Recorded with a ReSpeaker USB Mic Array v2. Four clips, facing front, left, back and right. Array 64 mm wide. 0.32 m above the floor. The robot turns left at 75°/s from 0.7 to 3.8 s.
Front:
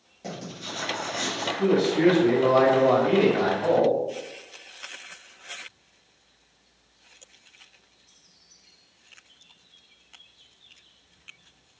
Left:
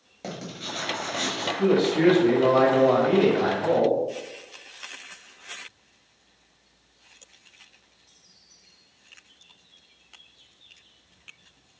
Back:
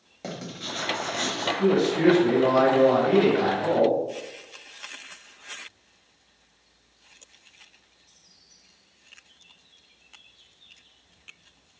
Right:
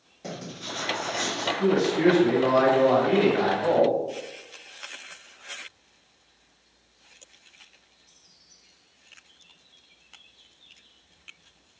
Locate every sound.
0.2 s writing: 135° left, 1.6 m; by 1.5 s 80° left, 1.6 m
1.6 s a man speaking: 100° left, 1.5 m; by 4.0 s 65° right, 1.5 m